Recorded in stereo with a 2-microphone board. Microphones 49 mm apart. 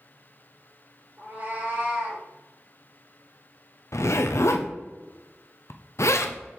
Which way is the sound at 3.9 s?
70° left (ahead or behind).